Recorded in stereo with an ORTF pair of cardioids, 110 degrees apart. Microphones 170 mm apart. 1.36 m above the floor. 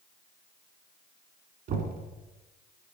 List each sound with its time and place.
1.7 s knocking: 70° right, 3 m